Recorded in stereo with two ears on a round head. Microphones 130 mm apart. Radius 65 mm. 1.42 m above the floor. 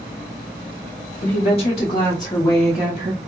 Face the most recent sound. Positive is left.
turn(degrees=-35)  # may be behind; listen again after turning